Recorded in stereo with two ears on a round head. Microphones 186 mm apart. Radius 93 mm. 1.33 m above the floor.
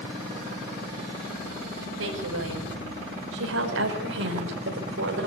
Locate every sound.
2.0 s a woman speaking: 75° right (ahead or behind), 6.5 m; by 5.3 s 70° right (ahead or behind), 4.5 m